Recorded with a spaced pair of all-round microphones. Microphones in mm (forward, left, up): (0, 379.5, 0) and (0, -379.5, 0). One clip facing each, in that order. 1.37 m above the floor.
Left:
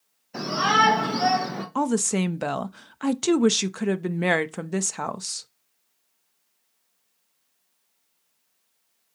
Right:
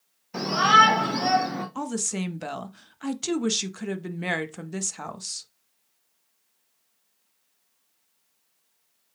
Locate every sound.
0.3 s a shout: 40° right (ahead or behind), 1.3 m; by 1.6 s 45° left (ahead or behind), 1.3 m
1.8 s a woman speaking: 80° left, 0.6 m